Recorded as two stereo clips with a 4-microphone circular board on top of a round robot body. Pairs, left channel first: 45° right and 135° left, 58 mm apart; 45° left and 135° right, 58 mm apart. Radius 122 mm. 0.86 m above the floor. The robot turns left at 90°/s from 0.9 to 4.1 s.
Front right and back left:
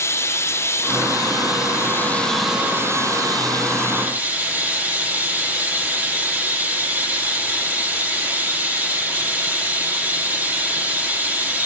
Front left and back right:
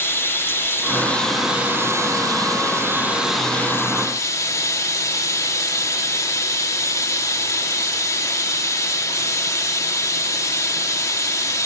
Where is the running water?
Straight ahead, 1.7 m; by 11.7 s 70° left, 1.7 m.